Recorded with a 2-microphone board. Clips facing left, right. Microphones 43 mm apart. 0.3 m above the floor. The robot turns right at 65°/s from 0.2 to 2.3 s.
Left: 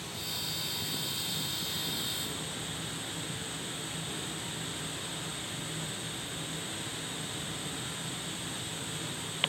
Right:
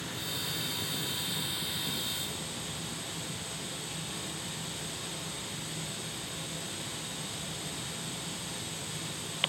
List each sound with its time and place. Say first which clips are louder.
0.0 s running water: right 2 dB; 105° right, 2 m; by 9.5 s 30° left, 2 m